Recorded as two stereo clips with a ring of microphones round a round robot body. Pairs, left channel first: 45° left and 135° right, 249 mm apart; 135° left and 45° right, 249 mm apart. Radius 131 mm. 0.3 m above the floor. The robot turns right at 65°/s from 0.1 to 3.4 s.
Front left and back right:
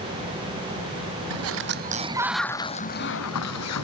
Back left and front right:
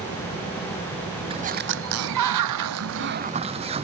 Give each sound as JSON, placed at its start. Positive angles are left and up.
{"t": 1.3, "sound": "a sliding door", "azimuth_deg": -115}